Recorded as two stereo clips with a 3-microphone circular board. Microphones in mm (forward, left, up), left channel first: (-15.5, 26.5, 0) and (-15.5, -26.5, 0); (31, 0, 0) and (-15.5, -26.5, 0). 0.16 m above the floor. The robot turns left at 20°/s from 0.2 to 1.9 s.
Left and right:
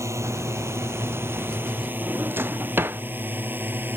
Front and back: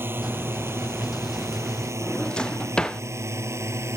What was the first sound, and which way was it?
A drone, 105° right.